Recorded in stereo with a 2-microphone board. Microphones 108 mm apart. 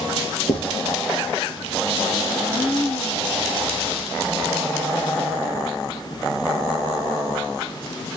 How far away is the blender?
About 2.5 m.